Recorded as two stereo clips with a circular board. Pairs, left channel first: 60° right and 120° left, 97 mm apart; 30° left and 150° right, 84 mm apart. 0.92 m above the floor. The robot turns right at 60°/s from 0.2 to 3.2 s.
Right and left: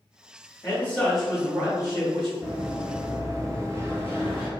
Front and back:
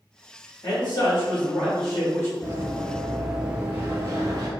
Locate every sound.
0.6 s a man speaking: 5° right, 1.7 m; by 2.3 s 95° left, 1.7 m
2.4 s running footsteps: 30° left, 1.2 m; by 4.5 s 175° right, 1.3 m